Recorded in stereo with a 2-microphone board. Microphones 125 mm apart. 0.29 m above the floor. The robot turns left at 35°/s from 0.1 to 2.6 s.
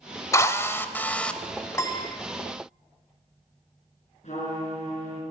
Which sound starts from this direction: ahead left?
A drill, at 0.3 s.